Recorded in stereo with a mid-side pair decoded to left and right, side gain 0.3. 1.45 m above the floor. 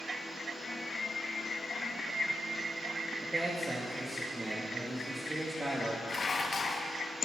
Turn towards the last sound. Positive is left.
turn(degrees=55)